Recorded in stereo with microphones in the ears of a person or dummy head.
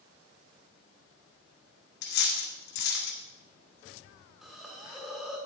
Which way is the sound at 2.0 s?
65° left (ahead or behind).